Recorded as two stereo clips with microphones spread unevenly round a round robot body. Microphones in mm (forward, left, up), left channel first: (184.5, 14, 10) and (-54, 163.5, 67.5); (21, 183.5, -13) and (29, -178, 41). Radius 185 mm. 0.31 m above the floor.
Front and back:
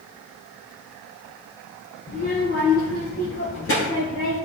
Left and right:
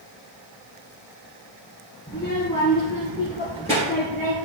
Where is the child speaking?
10° left, 2.0 m.